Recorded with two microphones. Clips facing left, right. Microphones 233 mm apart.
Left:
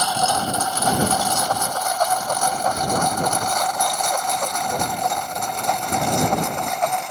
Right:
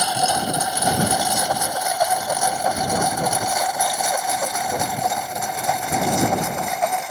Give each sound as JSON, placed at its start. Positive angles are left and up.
{"t": 0.0, "sound": "a lawn mower", "side_deg": -15}